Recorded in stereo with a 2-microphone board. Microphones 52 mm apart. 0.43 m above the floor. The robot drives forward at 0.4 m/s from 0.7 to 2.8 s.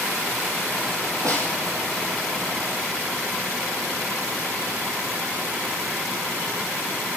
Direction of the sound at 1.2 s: 80° right.